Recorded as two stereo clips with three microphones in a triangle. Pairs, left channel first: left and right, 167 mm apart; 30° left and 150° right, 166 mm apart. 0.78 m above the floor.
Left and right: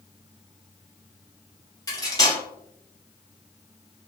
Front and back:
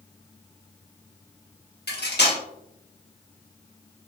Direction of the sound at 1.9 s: 25° left.